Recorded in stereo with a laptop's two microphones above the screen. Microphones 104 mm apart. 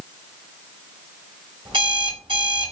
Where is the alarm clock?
60° right (ahead or behind), 2 m.